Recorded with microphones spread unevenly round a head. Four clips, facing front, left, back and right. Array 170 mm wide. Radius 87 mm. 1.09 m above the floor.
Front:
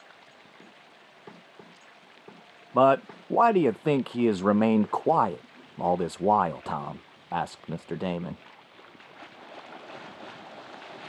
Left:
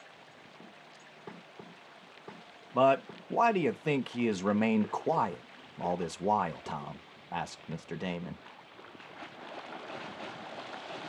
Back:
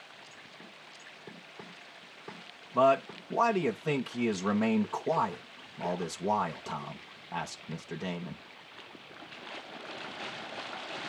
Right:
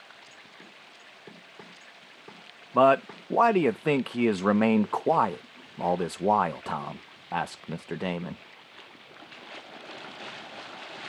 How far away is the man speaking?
About 0.8 m.